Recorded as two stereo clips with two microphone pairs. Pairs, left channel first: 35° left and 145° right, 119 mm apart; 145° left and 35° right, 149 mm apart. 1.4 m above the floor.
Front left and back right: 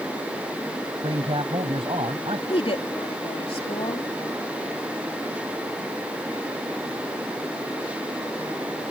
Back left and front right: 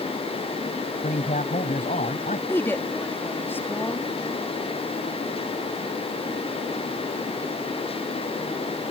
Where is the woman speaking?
70° left.